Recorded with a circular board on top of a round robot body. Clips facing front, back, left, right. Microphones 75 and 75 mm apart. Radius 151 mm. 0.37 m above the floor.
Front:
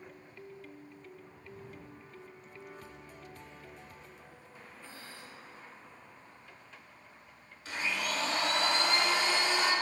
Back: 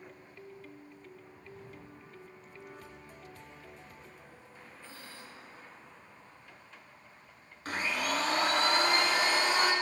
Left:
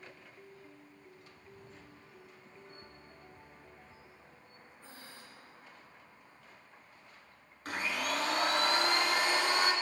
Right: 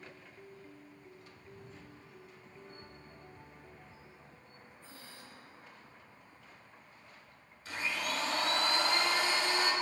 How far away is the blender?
About 1.8 m.